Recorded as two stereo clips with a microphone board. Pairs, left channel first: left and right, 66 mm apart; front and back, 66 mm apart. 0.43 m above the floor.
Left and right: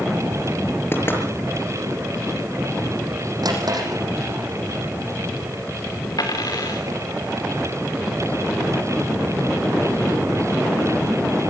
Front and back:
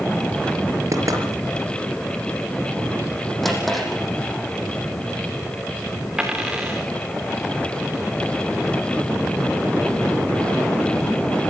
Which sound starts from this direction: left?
A dropped coin, at 6.2 s.